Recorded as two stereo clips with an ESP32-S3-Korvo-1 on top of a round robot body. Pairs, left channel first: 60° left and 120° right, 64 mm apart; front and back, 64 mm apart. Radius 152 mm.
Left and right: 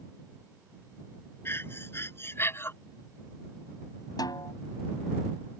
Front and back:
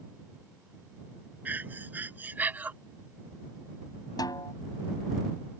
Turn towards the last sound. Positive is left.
turn(degrees=30)